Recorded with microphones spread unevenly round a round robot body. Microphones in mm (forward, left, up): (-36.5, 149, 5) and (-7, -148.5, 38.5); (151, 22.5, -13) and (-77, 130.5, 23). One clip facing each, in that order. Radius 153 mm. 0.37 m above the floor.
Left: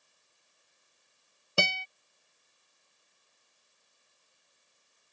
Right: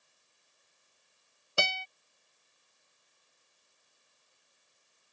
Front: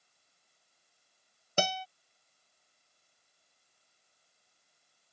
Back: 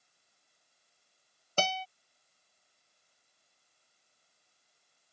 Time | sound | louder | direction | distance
1.6 | a guitar | left 3 dB, front 1 dB | 45° left | ?